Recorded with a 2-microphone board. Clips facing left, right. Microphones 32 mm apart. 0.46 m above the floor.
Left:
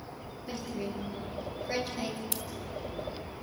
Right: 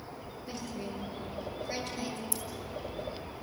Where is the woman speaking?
10° left (ahead or behind), 8 m; by 2.2 s 15° left (ahead or behind), 6.5 m.